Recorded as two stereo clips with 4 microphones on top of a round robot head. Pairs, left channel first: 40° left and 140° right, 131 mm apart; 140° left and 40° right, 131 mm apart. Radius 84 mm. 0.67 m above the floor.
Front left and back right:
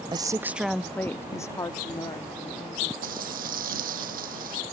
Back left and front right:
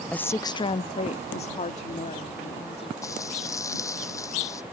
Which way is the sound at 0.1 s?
145° right.